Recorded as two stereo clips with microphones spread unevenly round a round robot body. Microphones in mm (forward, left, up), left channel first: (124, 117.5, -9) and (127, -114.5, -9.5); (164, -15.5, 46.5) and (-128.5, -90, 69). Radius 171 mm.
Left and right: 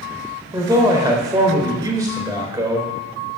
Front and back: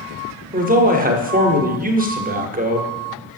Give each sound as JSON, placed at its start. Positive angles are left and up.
{"t": 0.5, "sound": "a man speaking", "azimuth_deg": -140, "distance_m": 1.5}